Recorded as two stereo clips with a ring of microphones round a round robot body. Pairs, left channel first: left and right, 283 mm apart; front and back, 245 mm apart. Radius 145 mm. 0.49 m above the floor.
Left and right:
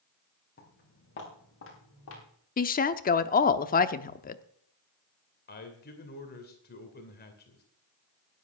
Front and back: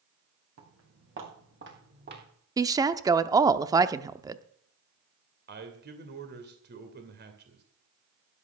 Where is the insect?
I don't hear an insect.